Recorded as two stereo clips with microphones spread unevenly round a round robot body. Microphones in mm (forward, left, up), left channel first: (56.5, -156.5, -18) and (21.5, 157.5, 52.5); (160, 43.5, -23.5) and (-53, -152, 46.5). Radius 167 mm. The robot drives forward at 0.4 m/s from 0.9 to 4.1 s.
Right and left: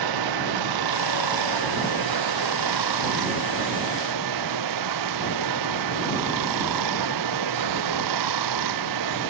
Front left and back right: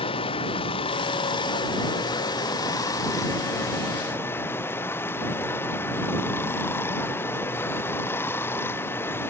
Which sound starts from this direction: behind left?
Running water, at 0.0 s.